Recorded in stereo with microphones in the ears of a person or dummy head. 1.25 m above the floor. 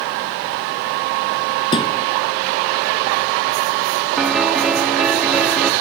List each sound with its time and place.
1.7 s a thud: 25° left (ahead or behind)
4.2 s a piano: centre (ahead or behind)